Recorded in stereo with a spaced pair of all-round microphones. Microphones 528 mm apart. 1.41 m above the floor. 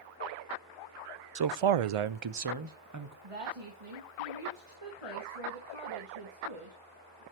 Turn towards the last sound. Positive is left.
turn(degrees=-80)